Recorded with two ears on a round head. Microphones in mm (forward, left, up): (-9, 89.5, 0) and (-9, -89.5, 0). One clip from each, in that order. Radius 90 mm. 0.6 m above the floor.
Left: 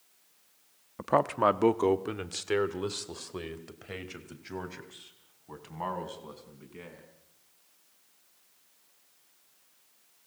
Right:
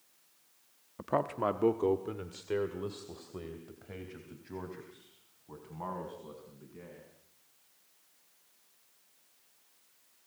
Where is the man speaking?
15° left (ahead or behind), 0.7 m; by 7.0 s 60° left (ahead or behind), 5.5 m.